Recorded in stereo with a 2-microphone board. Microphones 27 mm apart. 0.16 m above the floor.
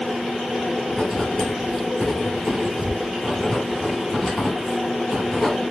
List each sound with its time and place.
0.9 s writing: 10° left (ahead or behind), 1.3 m